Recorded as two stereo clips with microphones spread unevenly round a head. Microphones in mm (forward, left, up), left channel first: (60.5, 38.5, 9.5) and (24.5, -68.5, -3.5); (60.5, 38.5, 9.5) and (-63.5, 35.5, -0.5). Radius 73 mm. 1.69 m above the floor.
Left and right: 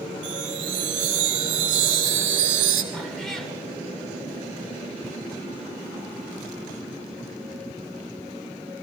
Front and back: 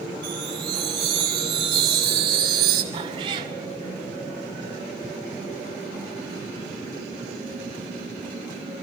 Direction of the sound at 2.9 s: 150° left.